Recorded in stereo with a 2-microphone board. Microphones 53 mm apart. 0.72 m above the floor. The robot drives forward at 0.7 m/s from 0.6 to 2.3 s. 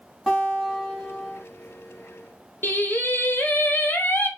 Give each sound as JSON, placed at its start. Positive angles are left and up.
{"t": 0.3, "sound": "a guitar", "side_deg": -5, "distance_m": 1.2}
{"t": 2.6, "sound": "singing", "side_deg": 40, "distance_m": 0.7}